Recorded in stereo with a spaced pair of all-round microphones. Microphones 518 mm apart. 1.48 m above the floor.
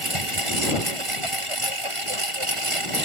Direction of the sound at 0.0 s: 70° right (ahead or behind).